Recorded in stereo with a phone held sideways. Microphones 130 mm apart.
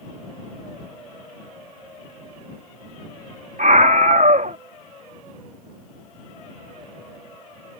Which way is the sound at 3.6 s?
80° right.